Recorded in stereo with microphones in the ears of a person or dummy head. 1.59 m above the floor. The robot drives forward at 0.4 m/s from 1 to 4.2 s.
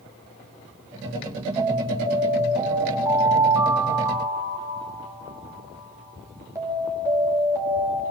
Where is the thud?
I don't hear a thud.